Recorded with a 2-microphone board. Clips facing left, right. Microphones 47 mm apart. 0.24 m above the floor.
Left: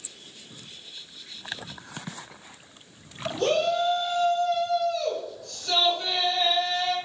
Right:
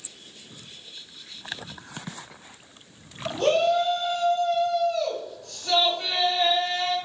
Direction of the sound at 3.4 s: 35° right (ahead or behind).